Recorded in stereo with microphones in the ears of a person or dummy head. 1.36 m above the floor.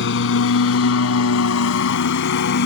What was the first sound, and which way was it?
A lawn mower, 70° left (ahead or behind).